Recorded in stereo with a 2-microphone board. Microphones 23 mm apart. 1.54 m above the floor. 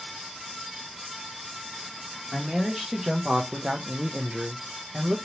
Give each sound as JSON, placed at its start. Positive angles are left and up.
{"t": 2.3, "sound": "a man speaking", "side_deg": -10, "distance_m": 1.0}